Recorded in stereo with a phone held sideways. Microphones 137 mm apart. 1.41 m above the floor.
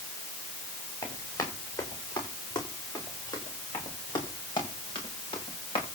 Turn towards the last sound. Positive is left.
turn(degrees=40)  # may be behind; listen again after turning